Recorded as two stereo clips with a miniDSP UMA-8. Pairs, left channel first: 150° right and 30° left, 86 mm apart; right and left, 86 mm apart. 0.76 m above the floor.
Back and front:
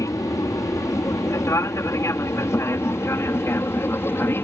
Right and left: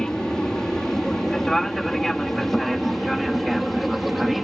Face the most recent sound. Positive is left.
turn(degrees=180)